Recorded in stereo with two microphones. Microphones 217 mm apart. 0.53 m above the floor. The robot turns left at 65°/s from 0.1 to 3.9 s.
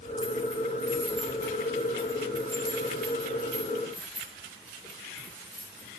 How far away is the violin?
I don't hear a violin.